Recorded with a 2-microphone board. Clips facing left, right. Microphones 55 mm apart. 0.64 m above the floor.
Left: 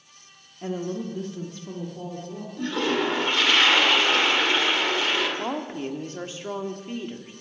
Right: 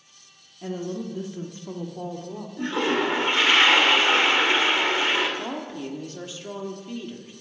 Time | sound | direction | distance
0.6 | a woman speaking | 25° left (ahead or behind) | 0.9 m
2.6 | a toilet flushing | 25° right (ahead or behind) | 2 m
5.4 | a woman speaking | 40° left (ahead or behind) | 1.2 m